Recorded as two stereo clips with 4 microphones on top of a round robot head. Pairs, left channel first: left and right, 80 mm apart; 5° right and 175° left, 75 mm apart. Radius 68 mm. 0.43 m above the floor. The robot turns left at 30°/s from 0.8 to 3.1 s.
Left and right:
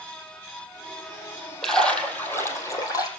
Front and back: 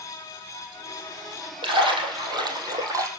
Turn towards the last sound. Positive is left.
turn(degrees=130)